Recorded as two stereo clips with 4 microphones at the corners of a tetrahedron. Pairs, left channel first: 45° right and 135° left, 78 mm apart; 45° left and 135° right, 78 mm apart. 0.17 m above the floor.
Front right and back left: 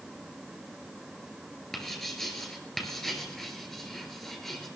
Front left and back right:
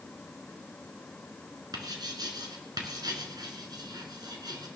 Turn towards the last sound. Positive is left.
turn(degrees=-130)